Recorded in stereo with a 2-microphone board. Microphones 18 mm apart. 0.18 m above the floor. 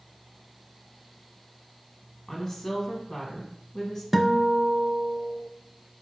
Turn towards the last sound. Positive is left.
turn(degrees=-15)  # may be behind; listen again after turning